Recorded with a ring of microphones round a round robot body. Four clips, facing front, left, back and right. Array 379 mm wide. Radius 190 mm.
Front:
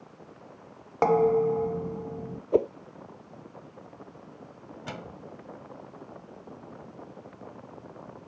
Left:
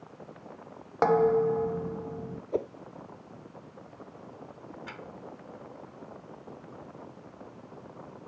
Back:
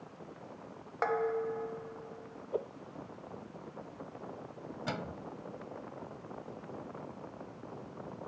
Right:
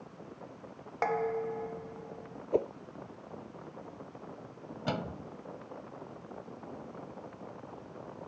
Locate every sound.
1.0 s dishes clattering: 40° left
2.5 s a whoosh: 5° right
4.9 s a microwave: 95° right